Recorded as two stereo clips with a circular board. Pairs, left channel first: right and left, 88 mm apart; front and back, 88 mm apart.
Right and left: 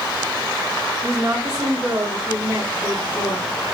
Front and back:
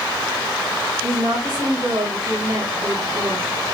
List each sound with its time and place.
1.0 s a woman speaking: 155° left, 1.8 m